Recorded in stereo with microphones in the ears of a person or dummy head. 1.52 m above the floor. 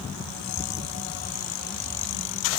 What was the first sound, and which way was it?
Only background noise.